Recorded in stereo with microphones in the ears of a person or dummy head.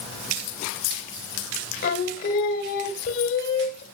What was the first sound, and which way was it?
Singing, 45° left (ahead or behind).